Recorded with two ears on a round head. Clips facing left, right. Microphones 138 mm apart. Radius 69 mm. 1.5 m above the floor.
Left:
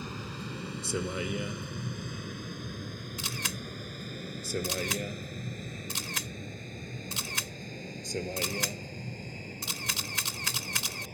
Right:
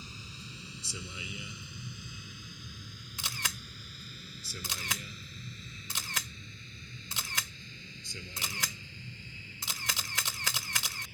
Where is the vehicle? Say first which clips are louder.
Left 10 dB; 45° left (ahead or behind); by 11.2 s 35° left (ahead or behind).